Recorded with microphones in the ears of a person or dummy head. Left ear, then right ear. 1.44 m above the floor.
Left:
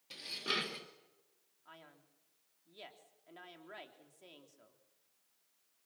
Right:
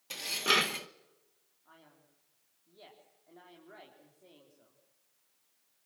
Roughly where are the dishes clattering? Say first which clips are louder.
Right 9 dB; right.